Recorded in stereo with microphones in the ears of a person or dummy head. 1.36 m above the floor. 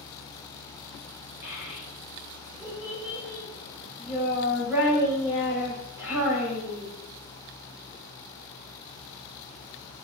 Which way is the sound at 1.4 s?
10° right (ahead or behind).